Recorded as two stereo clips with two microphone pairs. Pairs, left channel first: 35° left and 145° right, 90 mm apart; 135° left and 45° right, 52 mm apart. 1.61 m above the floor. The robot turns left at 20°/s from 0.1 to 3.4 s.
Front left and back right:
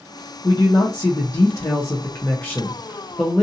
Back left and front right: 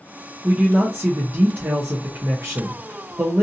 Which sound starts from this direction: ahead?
A man speaking, at 0.4 s.